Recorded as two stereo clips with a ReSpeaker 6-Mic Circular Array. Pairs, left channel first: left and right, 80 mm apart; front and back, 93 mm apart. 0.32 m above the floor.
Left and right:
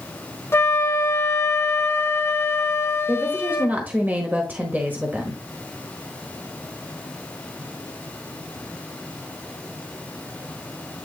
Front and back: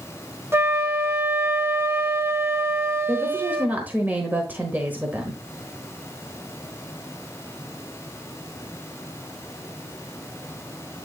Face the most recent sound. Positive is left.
turn(degrees=-130)